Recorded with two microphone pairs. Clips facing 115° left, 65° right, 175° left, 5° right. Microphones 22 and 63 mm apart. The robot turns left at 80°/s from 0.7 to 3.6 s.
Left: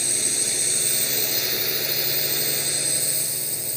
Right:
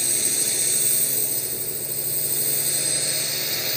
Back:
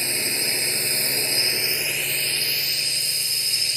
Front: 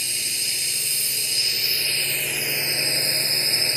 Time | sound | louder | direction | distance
0.0 | a drone | even, back 5 dB | 160° right | ?